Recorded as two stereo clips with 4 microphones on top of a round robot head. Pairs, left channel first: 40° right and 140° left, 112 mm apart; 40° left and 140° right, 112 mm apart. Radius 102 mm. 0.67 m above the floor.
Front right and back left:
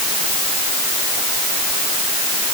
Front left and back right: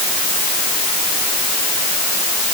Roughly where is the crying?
No crying in this recording.